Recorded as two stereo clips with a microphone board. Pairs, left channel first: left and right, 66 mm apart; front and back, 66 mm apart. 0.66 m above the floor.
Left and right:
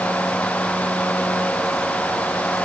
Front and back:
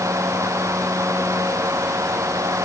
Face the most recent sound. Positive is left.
No sound to turn to.